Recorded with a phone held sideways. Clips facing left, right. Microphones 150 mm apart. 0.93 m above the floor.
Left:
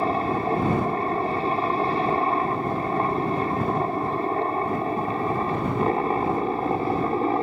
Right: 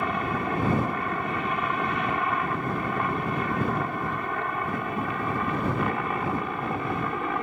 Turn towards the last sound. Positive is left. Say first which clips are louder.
# left 5 dB
turn(degrees=35)  # may be behind; listen again after turning